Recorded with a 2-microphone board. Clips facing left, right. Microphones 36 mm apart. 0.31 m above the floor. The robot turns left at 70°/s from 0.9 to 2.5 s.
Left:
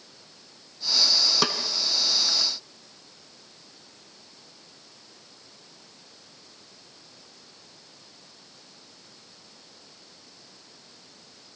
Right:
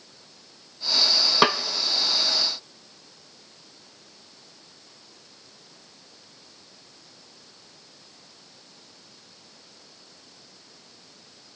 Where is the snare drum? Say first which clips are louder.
Right 7 dB; 30° right (ahead or behind), 0.9 m; by 1.6 s 45° right (ahead or behind), 0.9 m.